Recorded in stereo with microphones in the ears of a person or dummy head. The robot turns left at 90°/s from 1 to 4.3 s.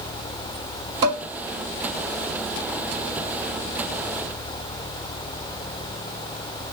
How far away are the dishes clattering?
About 4 m.